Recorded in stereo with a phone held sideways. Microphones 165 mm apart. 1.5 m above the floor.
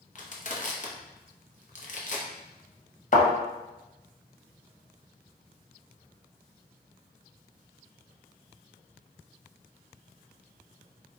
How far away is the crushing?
About 0.6 m.